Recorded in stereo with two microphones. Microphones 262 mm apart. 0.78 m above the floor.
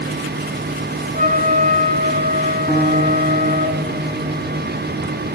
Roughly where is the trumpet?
Right.